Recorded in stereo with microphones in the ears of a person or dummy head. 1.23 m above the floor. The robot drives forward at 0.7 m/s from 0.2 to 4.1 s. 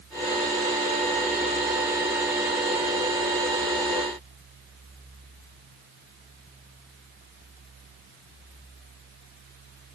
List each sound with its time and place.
Only background noise.